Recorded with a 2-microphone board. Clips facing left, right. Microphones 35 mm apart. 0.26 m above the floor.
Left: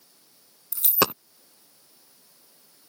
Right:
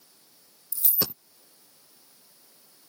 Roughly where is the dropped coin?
Left.